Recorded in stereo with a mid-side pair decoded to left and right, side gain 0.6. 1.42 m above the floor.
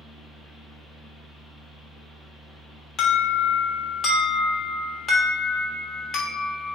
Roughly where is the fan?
Ahead.